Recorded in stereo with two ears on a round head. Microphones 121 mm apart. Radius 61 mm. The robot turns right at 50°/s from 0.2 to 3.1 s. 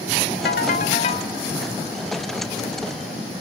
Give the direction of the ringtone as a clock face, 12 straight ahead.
9 o'clock.